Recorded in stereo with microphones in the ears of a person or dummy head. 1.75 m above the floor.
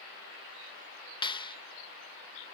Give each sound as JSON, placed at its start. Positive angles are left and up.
{"t": 1.2, "sound": "a clap", "side_deg": 30}